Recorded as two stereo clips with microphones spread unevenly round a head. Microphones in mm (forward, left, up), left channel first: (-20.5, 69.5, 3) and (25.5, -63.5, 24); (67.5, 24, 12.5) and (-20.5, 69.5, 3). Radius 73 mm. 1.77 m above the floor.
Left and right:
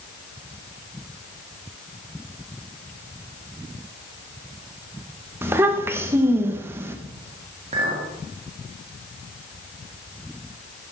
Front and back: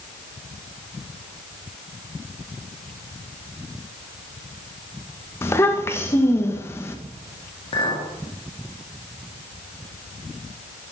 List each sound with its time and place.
5.4 s a child speaking: 35° right, 1.0 m
7.7 s a clink: 45° right, 1.7 m